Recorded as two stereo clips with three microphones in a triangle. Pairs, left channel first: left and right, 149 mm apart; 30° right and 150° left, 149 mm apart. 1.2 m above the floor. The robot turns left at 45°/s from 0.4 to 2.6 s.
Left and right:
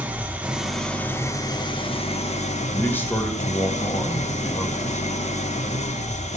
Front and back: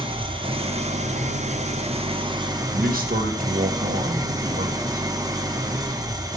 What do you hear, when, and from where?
0.0 s an engine running: 165° right, 1.0 m; by 6.4 s 95° left, 1.0 m
2.7 s a man speaking: 165° left, 1.2 m